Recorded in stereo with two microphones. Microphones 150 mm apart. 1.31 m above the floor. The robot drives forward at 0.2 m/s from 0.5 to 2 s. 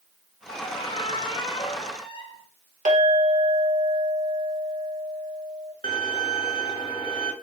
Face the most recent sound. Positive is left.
turn(degrees=35)  # may be behind; listen again after turning